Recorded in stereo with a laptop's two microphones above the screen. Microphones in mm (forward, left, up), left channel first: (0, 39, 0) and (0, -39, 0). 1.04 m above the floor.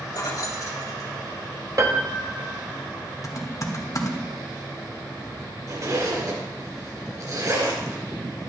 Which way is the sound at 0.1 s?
55° left (ahead or behind).